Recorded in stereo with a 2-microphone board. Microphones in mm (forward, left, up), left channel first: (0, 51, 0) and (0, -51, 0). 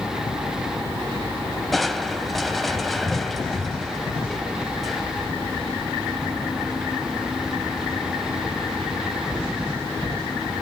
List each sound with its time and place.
1.7 s crushing: centre (ahead or behind), 1.6 m